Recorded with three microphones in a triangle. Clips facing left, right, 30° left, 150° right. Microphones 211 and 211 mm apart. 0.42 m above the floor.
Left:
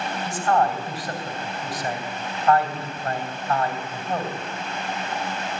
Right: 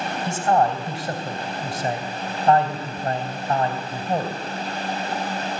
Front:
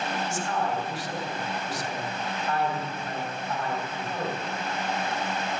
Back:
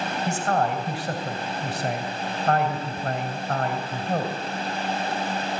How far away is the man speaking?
About 3 m.